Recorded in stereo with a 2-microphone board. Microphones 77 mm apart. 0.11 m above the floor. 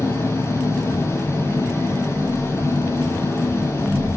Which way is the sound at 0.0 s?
35° left (ahead or behind).